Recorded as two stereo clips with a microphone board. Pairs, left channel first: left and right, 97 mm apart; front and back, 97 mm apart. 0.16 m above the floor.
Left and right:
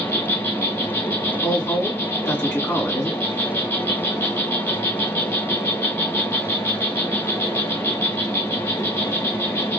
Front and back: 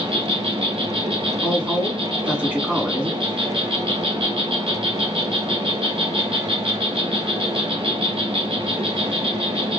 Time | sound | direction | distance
0.0 | an insect | 155° left | 0.8 m
1.4 | a woman speaking | 120° left | 1.4 m